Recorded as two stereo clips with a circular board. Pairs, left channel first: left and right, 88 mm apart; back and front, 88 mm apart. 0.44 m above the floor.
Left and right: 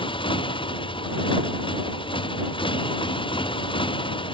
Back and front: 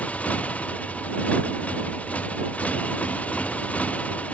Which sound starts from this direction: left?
A motorcycle, at 0.0 s.